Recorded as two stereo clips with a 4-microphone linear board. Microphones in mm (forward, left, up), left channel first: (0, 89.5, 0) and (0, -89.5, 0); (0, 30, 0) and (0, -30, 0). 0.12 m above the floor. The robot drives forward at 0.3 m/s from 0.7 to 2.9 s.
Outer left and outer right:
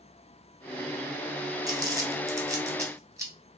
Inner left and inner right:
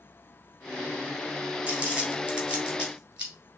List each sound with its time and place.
1.7 s crumpling: 20° right (ahead or behind), 1.1 m; by 3.3 s 15° right (ahead or behind), 1.3 m